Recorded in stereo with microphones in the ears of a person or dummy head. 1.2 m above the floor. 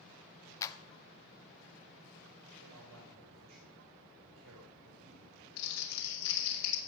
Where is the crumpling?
85° left, 3 m.